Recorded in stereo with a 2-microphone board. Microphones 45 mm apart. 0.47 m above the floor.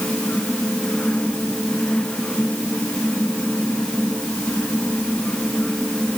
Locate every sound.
Only background noise.